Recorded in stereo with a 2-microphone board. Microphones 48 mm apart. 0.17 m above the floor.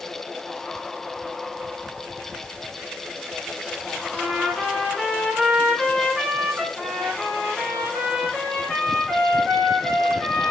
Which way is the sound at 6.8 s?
20° left (ahead or behind).